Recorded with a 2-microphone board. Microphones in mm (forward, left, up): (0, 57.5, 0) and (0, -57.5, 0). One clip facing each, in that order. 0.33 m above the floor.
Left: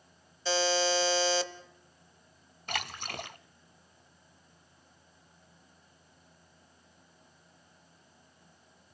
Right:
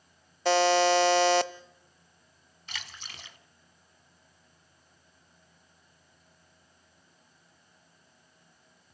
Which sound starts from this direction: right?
A buzzer, at 0.5 s.